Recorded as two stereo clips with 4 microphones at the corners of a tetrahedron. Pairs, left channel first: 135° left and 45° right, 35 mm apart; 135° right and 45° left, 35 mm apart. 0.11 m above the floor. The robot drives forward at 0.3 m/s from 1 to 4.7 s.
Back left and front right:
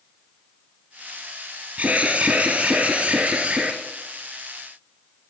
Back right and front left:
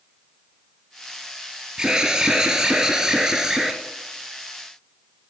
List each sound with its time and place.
1.8 s an alarm: 25° right, 2.5 m; by 3.8 s 35° right, 2 m